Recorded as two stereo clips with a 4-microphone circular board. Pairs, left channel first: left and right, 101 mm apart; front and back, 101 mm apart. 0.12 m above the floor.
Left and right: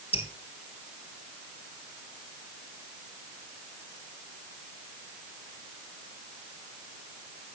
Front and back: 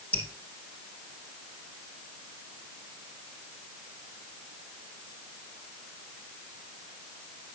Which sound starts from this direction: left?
Dripping, at 0.1 s.